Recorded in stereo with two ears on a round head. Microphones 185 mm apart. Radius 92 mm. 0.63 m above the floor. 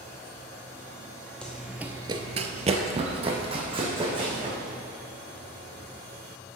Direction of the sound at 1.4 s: 5° left (ahead or behind).